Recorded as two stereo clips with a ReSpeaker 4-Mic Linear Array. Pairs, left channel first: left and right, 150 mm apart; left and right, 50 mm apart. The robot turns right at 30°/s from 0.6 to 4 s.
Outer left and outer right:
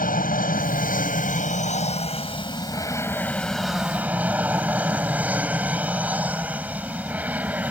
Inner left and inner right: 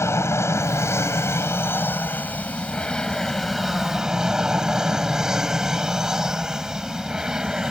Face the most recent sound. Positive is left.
turn(degrees=-170)